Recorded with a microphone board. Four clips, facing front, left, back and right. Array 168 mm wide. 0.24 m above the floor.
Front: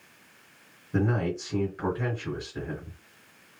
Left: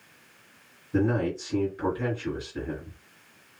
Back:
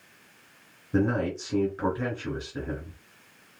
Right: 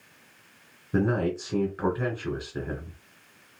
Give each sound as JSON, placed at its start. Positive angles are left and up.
{"t": 0.9, "sound": "a man speaking", "azimuth_deg": -110, "distance_m": 1.7}